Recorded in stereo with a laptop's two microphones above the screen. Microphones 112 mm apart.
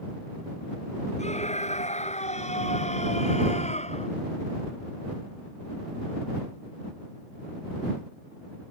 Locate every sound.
1.2 s a scream: 85° left